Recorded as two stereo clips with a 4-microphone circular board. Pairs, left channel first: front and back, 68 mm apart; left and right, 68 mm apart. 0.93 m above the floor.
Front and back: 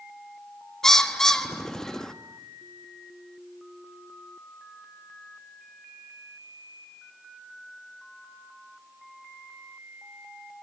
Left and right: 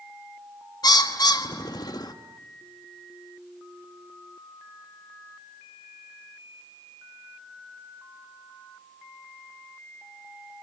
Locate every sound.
0.8 s a bird: 80° left, 1.3 m